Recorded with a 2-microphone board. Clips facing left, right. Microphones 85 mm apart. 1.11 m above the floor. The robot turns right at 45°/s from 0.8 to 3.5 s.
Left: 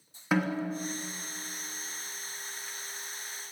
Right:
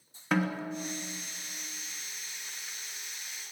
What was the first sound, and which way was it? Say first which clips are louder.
A snare drum: left 1 dB; 5° left (ahead or behind).